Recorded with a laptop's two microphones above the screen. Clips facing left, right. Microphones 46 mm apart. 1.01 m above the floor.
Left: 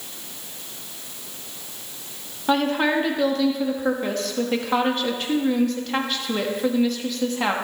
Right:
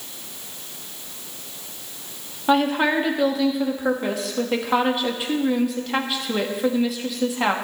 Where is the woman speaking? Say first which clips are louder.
Right 2 dB; 10° right (ahead or behind), 1.2 m.